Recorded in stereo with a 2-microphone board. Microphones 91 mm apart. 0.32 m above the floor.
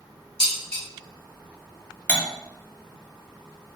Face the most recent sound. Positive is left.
turn(degrees=20)  # may be behind; listen again after turning